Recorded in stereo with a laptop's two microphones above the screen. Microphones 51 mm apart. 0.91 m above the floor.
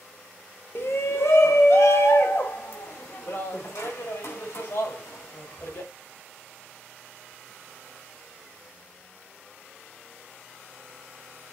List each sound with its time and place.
0.8 s a shout: 55° left (ahead or behind), 1.2 m; by 5.9 s 80° left, 5.5 m